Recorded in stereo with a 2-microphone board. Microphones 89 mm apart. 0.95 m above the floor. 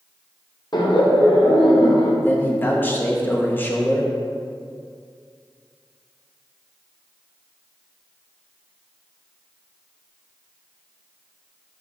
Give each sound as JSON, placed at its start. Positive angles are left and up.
{"t": 0.7, "sound": "laughter", "side_deg": 50, "distance_m": 0.9}
{"t": 2.2, "sound": "a man speaking", "side_deg": 20, "distance_m": 0.9}